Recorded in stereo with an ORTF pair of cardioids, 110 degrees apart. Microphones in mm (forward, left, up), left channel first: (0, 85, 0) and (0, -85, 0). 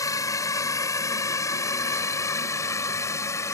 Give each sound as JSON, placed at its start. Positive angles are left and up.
{"t": 0.0, "sound": "a drone", "azimuth_deg": 20}